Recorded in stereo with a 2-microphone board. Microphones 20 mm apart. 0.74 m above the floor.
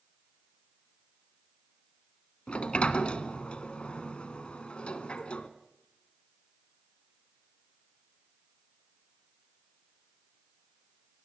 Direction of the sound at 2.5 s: 60° left (ahead or behind).